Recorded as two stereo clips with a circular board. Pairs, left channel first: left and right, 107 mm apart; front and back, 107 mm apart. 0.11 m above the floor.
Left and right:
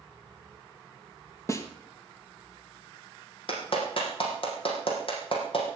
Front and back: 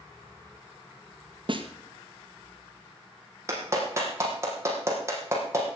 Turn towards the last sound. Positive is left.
turn(degrees=120)